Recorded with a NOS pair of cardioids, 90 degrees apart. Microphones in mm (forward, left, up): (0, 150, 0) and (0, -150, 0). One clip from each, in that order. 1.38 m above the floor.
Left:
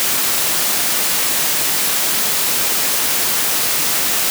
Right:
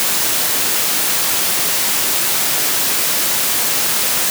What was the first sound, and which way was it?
Only background noise.